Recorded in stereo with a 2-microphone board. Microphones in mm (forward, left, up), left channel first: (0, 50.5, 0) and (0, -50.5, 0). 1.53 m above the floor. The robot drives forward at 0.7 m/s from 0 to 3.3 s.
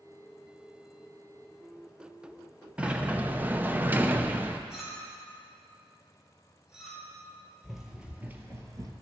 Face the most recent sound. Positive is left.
turn(degrees=-40)  # may be behind; listen again after turning